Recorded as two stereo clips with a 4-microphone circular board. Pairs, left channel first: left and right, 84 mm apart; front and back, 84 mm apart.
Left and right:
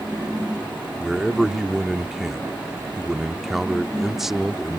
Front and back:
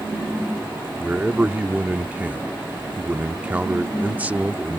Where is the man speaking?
170° right.